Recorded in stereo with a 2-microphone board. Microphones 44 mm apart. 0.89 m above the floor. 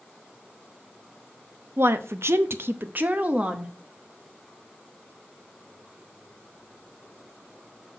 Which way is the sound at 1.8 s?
60° right (ahead or behind).